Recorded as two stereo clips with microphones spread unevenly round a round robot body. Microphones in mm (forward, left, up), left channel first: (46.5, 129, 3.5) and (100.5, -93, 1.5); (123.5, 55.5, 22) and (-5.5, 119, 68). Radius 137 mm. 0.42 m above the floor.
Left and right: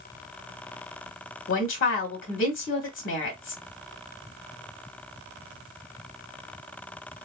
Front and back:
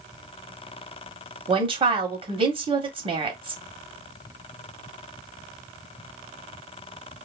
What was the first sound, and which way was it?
A woman speaking, 105° left.